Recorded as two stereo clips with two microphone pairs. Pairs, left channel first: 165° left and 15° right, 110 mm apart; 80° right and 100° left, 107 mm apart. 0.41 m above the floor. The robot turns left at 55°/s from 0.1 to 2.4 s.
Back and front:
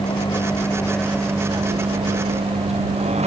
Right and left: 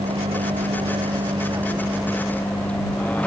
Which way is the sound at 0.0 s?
125° left.